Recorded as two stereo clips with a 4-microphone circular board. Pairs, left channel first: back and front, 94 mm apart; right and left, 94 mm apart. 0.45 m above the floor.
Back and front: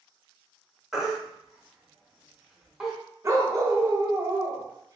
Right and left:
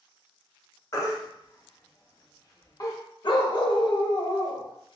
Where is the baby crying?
85° right, 0.6 m.